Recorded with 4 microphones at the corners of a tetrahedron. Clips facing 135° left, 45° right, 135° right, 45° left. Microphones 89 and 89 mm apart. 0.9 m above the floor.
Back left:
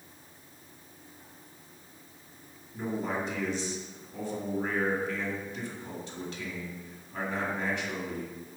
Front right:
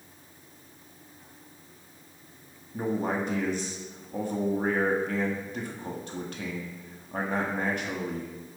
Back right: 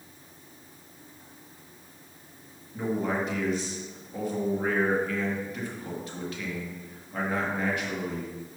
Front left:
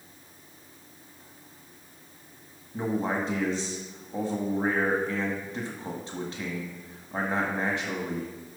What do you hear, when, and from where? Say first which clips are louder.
2.7 s a man speaking: front right 4 dB, even; 10° right, 1.8 m